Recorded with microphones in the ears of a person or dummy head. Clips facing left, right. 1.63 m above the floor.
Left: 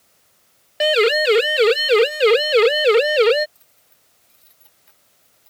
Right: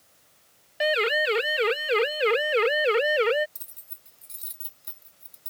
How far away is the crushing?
No crushing in this recording.